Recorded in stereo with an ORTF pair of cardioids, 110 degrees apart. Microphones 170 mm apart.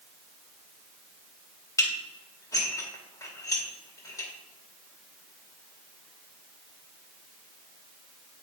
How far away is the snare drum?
I don't hear a snare drum.